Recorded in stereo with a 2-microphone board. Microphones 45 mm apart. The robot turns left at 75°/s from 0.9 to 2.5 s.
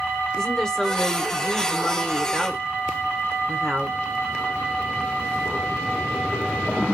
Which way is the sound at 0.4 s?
15° left (ahead or behind).